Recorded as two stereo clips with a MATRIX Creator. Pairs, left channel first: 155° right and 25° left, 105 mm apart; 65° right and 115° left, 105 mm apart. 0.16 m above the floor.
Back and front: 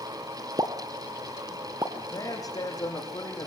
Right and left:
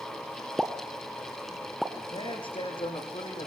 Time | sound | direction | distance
0.6 | a pop | 30° left | 1.2 m
1.9 | a man speaking | 105° right | 8 m